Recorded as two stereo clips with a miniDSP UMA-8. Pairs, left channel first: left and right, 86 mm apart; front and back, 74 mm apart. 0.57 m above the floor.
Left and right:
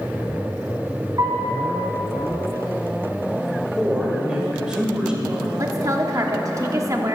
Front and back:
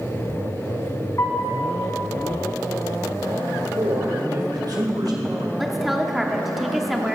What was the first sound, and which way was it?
A piano, 50° right.